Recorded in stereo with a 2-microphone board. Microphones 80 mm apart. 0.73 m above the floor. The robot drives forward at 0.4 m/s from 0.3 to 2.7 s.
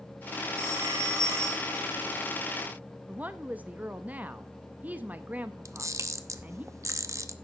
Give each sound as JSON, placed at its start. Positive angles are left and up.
{"t": 0.6, "sound": "a phone ringing", "side_deg": -30, "distance_m": 3.0}
{"t": 3.1, "sound": "a woman speaking", "side_deg": -20, "distance_m": 0.5}
{"t": 5.7, "sound": "a camera shutter", "side_deg": -40, "distance_m": 0.7}